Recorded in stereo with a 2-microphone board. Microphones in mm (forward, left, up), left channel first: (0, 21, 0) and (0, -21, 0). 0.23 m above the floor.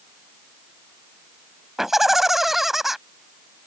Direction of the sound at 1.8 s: 10° right (ahead or behind).